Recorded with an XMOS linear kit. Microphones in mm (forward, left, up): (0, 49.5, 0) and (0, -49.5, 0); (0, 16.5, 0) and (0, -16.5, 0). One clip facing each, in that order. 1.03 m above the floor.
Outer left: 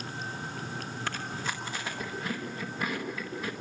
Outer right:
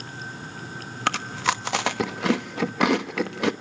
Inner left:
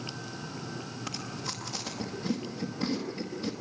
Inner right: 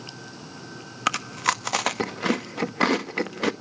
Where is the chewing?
80° right, 0.9 m.